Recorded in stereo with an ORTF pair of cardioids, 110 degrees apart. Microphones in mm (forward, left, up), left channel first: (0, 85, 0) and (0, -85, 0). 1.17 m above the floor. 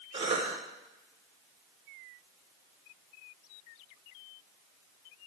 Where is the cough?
35° right, 3 m.